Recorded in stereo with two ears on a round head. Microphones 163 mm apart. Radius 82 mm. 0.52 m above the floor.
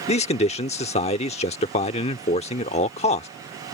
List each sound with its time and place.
0.1 s a man speaking: 35° left (ahead or behind)